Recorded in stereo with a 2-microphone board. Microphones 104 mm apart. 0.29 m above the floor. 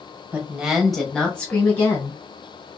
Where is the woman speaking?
20° right (ahead or behind), 1.0 m; by 2.2 s 20° left (ahead or behind), 1.8 m.